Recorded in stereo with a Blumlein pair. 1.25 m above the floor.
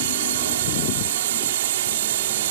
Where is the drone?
55° right.